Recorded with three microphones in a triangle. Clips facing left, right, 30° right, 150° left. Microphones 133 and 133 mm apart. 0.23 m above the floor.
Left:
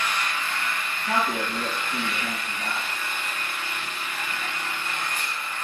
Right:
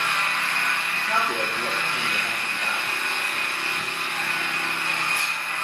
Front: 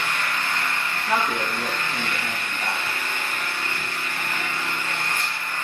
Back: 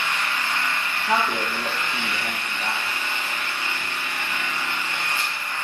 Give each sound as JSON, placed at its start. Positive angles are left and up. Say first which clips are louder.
{"t": 0.0, "sound": "an engine running", "louder": "right 1 dB, even", "azimuth_deg": -70, "distance_m": 1.4}
{"t": 1.1, "sound": "a man speaking", "louder": "left 1 dB, back 1 dB", "azimuth_deg": 50, "distance_m": 5.5}